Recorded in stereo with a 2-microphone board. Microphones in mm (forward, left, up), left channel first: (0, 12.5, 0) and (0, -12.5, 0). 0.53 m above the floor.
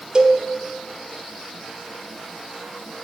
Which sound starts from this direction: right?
A cowbell, at 0.1 s.